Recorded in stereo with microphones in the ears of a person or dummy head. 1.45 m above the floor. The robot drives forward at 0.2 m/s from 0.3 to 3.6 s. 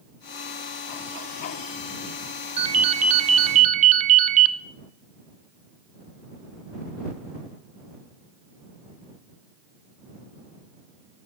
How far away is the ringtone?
About 0.7 m.